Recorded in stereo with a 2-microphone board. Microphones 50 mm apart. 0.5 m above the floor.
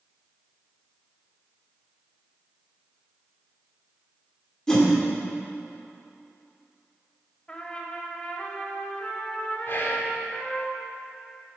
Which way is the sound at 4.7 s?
10° left (ahead or behind).